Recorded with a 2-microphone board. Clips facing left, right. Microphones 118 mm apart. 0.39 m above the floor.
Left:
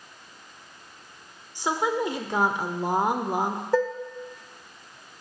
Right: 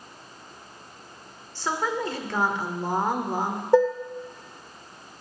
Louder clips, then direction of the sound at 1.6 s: Left 2 dB; 15° left (ahead or behind).